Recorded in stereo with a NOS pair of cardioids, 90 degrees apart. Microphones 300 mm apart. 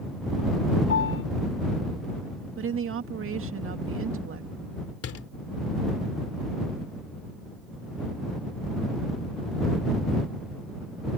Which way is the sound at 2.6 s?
45° right.